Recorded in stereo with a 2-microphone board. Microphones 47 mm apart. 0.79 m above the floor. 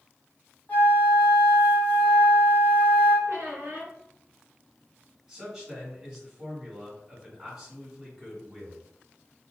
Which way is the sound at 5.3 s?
10° right (ahead or behind).